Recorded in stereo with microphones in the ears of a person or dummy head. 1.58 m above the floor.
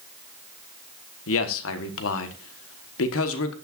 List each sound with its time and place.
1.3 s a man speaking: 80° left, 1.4 m